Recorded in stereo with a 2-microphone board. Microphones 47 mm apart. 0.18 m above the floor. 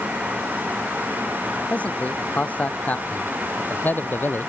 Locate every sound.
1.7 s a man speaking: 30° left (ahead or behind); by 4.5 s 45° left (ahead or behind)